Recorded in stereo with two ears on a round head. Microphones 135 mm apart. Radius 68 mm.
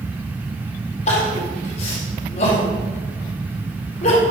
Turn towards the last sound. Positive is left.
turn(degrees=55)  # may be behind; listen again after turning